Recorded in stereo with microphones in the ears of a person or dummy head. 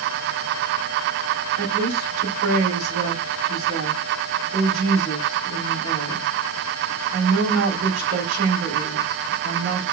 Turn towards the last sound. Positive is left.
turn(degrees=-60)  # may be behind; listen again after turning